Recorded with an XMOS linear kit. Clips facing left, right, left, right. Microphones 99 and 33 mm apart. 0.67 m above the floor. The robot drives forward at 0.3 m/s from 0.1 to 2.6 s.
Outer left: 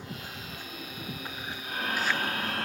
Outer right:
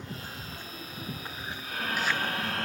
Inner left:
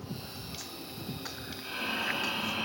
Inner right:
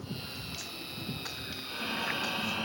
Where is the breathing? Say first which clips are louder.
Even, inner left 2 dB; 45° left (ahead or behind), 1.4 m; by 2.6 s 50° left (ahead or behind), 1.3 m.